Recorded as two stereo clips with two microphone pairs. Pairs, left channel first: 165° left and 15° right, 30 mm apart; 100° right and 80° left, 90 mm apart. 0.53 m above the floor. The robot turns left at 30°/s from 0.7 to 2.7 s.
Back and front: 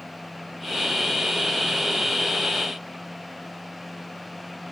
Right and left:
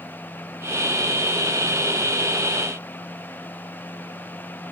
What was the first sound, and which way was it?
Only background noise.